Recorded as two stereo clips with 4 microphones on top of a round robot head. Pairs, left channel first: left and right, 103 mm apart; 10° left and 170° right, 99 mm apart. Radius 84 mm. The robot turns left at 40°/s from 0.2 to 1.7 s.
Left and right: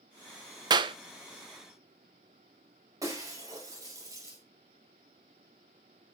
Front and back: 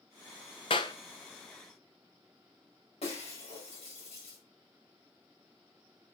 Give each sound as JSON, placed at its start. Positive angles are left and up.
{"t": 0.7, "sound": "a clap", "azimuth_deg": -45, "distance_m": 0.7}
{"t": 3.0, "sound": "breaking glass", "azimuth_deg": -35, "distance_m": 5.0}